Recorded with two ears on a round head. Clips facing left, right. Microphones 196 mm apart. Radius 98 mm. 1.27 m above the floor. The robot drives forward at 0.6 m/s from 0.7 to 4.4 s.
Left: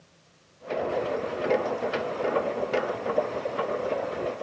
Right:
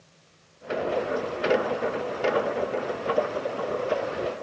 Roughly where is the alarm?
I don't hear an alarm.